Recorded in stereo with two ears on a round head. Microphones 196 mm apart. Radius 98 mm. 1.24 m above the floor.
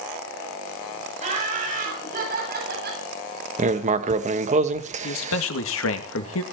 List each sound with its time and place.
1.2 s laughter: 30° right (ahead or behind), 7 m; by 3.0 s 50° right (ahead or behind), 7.5 m
3.6 s writing: 35° right (ahead or behind), 1.0 m
5.0 s a man speaking: 65° left (ahead or behind), 2 m